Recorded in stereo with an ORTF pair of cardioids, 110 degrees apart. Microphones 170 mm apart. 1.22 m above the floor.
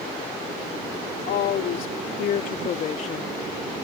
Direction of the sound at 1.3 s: 65° left.